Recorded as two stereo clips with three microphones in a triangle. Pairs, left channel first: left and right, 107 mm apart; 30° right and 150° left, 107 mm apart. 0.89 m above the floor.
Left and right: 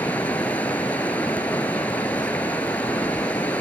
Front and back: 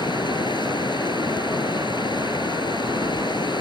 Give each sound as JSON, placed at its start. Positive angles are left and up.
{"t": 0.0, "sound": "running water", "azimuth_deg": 15}